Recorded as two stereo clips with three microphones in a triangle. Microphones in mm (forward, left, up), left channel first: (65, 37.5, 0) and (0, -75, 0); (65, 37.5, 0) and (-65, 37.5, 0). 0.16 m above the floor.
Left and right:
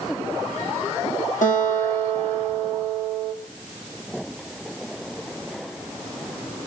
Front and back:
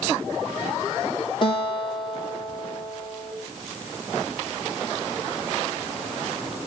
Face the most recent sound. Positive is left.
turn(degrees=50)